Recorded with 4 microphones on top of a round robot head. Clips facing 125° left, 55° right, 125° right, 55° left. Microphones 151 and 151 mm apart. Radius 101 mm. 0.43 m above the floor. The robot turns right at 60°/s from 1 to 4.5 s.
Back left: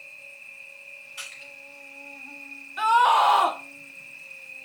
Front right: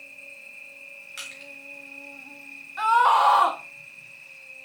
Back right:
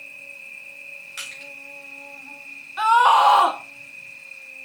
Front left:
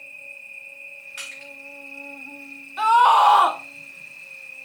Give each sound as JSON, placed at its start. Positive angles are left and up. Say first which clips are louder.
{"t": 0.0, "sound": "an insect", "louder": "front right 2 dB, even", "azimuth_deg": -85, "distance_m": 1.5}
{"t": 1.2, "sound": "crushing", "louder": "front right 3 dB, front left 1 dB", "azimuth_deg": -75, "distance_m": 4.0}
{"t": 2.8, "sound": "a scream", "louder": "even, even", "azimuth_deg": 120, "distance_m": 1.4}